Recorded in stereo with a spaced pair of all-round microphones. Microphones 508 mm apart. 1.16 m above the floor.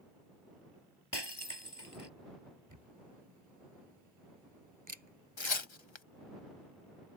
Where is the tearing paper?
60° left (ahead or behind).